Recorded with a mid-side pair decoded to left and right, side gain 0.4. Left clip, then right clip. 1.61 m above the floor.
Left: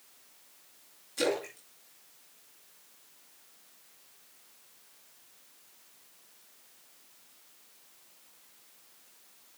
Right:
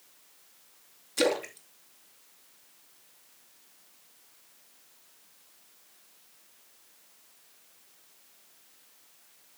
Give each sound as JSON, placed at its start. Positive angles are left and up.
{"t": 1.2, "sound": "a splash", "azimuth_deg": -55, "distance_m": 2.5}